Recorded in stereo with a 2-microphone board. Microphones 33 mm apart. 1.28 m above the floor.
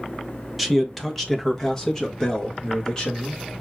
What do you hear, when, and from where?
0.6 s a man speaking: 5° right (ahead or behind), 1.0 m; by 3.6 s 20° left (ahead or behind), 2.5 m